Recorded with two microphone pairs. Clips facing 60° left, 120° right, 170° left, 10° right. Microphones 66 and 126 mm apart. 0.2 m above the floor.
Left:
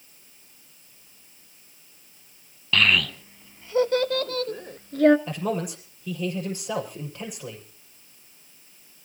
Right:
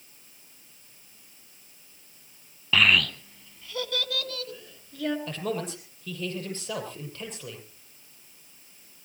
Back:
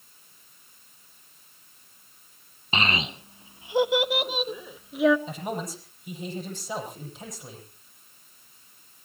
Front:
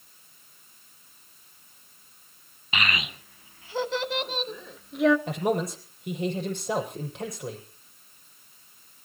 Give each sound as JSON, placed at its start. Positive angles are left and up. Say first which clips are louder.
{"t": 2.7, "sound": "a child speaking", "louder": "even, back 3 dB", "azimuth_deg": 175, "distance_m": 0.6}
{"t": 5.3, "sound": "a man speaking", "louder": "left 3 dB, front 6 dB", "azimuth_deg": -15, "distance_m": 6.5}